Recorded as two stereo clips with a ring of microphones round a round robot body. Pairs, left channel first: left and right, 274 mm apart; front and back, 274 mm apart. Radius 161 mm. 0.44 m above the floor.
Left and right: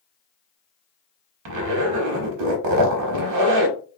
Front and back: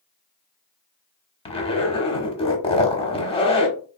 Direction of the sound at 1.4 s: 70° right.